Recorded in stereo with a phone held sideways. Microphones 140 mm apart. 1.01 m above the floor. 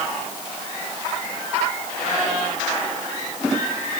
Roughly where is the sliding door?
No sliding door in this recording.